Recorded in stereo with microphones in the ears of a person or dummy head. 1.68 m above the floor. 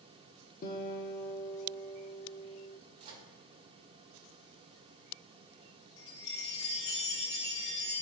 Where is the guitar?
50° left (ahead or behind), 0.9 m.